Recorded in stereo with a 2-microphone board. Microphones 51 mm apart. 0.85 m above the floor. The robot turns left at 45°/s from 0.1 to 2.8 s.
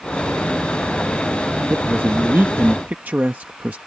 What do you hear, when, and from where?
1.7 s a man speaking: 80° right; by 3.8 s 130° right